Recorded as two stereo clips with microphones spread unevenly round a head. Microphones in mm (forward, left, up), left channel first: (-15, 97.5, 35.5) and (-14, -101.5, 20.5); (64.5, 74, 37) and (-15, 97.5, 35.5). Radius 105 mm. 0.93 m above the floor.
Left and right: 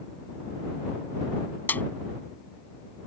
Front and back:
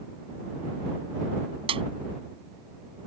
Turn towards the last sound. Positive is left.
turn(degrees=170)